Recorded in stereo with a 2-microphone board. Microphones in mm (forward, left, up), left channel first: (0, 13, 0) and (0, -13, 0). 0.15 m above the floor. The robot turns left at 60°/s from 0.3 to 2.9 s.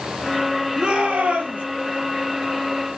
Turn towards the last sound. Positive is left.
turn(degrees=-165)